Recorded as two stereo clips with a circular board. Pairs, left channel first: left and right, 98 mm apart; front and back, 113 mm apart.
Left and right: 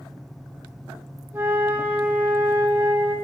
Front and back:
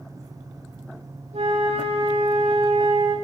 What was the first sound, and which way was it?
A flute, 155° right.